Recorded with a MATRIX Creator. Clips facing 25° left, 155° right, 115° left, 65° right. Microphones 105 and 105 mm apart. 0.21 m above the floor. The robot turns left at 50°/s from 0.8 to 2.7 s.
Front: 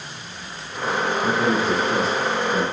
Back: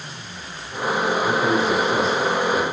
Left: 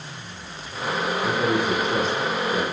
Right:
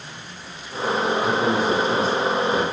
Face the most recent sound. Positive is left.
turn(degrees=-50)